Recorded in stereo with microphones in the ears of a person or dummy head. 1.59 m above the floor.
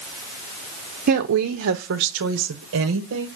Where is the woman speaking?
45° right (ahead or behind), 0.5 m; by 3.3 s 80° right, 1.5 m.